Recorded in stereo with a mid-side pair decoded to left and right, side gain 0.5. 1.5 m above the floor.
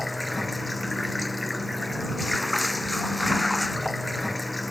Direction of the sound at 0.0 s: 10° left.